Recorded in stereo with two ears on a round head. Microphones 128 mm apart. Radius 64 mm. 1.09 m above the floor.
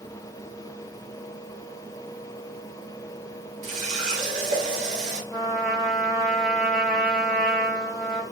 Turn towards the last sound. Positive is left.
turn(degrees=5)  # may be behind; listen again after turning